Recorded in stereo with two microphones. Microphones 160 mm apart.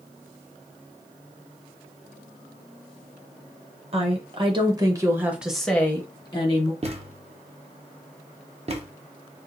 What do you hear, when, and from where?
3.9 s a woman speaking: 40° right (ahead or behind), 1.3 m; by 6.7 s 40° left (ahead or behind), 0.9 m
6.8 s a thud: 40° right (ahead or behind), 0.8 m